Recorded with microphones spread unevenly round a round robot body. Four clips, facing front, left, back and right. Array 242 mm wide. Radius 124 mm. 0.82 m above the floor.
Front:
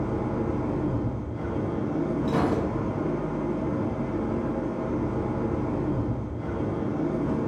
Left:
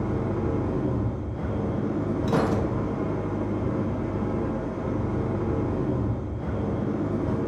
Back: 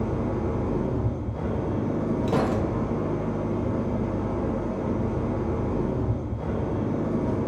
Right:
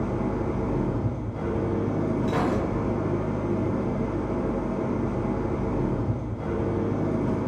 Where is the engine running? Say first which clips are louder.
Even, even; 165° right, 1.7 m.